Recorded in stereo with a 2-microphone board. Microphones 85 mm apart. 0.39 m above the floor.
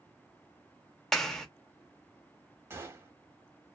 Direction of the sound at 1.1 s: 5° left (ahead or behind).